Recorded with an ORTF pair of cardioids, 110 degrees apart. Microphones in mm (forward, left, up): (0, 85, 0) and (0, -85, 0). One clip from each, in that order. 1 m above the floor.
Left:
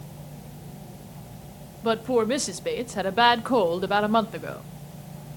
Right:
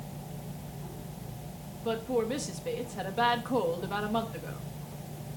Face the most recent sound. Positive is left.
turn(degrees=55)